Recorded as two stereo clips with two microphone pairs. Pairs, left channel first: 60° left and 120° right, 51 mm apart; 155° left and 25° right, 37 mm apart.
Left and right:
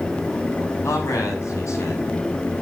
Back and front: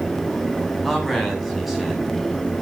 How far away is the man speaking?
About 7.5 m.